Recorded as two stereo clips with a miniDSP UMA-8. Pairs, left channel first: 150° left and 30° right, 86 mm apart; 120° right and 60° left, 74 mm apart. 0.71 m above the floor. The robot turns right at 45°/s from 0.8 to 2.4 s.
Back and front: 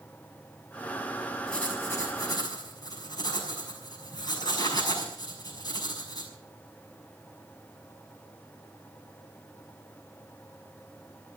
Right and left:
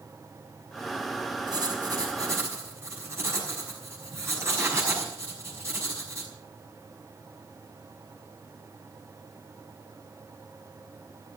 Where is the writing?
70° left, 5.5 m; by 6.3 s 110° left, 5.5 m.